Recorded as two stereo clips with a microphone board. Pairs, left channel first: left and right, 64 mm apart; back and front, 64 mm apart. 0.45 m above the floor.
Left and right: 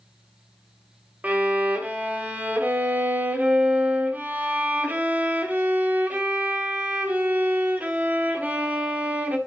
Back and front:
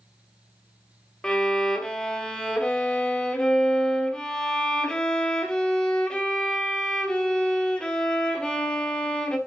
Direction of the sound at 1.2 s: 120° right.